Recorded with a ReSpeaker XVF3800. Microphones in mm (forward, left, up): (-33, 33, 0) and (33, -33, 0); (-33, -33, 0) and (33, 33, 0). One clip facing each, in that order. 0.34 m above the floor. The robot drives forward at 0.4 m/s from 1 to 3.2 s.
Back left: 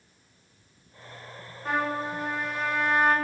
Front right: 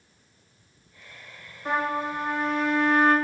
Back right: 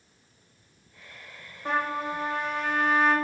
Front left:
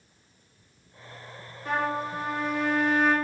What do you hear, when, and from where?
1.6 s a trumpet: 120° right, 1.2 m; by 3.1 s 150° right, 1.5 m